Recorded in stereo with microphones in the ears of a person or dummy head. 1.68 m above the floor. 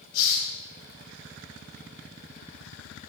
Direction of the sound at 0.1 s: 80° left.